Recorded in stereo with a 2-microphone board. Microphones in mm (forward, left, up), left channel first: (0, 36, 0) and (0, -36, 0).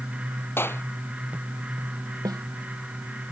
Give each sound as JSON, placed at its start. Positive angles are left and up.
{"t": 0.6, "sound": "a clap", "side_deg": 35}
{"t": 2.2, "sound": "a snare drum", "side_deg": -60}